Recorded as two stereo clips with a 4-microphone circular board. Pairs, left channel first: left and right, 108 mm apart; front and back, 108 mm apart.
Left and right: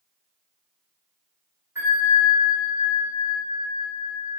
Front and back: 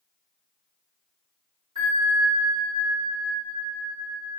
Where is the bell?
25° right, 1.7 m.